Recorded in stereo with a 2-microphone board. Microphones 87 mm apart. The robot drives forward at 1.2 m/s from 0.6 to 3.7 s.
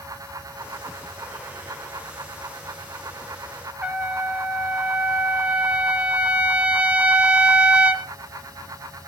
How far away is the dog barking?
I don't hear a dog barking.